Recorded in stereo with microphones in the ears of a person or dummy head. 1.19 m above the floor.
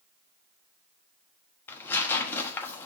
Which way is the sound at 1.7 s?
15° left (ahead or behind).